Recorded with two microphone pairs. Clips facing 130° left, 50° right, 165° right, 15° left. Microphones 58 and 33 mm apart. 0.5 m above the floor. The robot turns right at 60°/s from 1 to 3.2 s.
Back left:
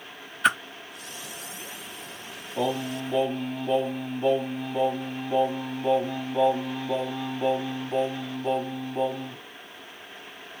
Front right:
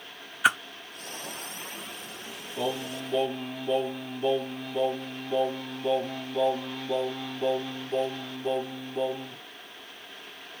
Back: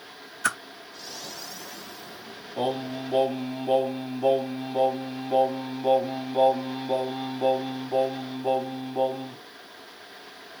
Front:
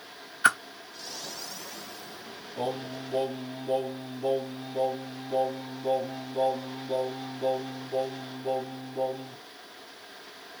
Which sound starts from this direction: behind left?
Singing, at 2.6 s.